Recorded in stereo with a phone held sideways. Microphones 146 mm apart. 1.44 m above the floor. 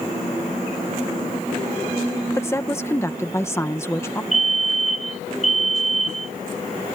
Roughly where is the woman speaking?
Centre.